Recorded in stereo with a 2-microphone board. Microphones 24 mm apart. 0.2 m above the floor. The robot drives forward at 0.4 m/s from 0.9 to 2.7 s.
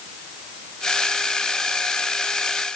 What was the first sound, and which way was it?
Only background noise.